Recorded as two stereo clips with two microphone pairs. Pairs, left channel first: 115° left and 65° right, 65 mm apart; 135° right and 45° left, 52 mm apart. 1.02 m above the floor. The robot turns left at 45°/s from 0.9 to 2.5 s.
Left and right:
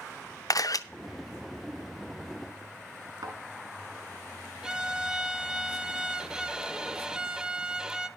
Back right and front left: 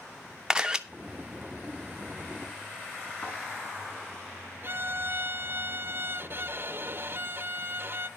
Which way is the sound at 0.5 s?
125° left.